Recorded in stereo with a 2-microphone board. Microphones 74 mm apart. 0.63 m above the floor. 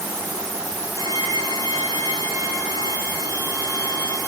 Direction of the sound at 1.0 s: 55° left (ahead or behind).